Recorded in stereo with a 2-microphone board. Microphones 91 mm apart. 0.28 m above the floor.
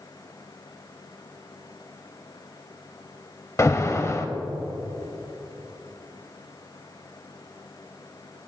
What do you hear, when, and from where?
3.6 s an alarm: 30° left (ahead or behind), 0.7 m